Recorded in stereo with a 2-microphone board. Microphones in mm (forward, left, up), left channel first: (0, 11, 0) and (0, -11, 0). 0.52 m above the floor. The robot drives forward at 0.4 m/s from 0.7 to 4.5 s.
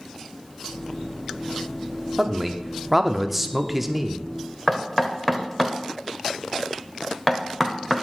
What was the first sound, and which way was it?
A man speaking, 10° right (ahead or behind).